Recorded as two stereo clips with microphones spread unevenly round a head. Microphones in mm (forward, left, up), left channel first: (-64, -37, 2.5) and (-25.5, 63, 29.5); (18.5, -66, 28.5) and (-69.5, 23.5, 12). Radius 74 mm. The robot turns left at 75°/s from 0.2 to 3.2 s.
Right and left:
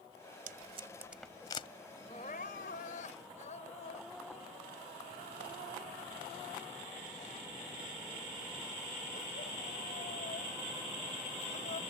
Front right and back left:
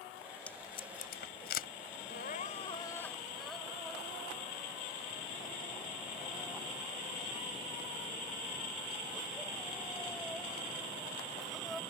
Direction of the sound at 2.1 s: 50° right.